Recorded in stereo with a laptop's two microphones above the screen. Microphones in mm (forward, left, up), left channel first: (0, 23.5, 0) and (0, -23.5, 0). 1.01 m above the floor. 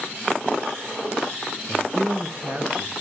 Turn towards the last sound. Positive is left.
turn(degrees=-60)  # may be behind; listen again after turning